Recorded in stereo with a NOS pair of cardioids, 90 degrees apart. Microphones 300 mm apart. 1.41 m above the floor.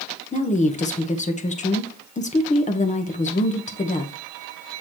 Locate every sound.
0.3 s a woman speaking: 25° left, 1.4 m